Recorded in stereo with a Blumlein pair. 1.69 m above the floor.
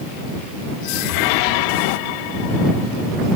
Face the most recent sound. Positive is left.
turn(degrees=45)